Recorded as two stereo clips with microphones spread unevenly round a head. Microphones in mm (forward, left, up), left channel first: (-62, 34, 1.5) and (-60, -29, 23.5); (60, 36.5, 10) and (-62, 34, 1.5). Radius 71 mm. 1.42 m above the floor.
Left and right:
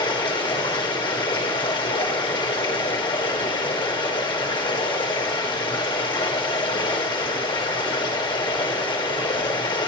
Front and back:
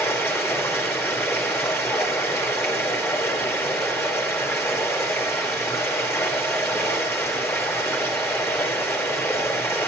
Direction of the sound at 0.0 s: 70° left.